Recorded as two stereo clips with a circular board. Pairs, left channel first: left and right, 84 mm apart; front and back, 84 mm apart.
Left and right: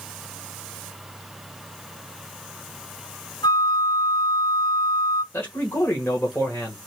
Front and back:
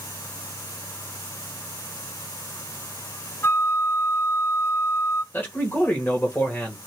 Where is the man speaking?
50° left, 1.5 m.